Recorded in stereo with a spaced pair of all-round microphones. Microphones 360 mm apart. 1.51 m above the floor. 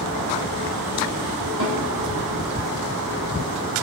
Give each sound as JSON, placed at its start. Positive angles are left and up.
{"t": 1.6, "sound": "a snare drum", "side_deg": 80, "distance_m": 5.0}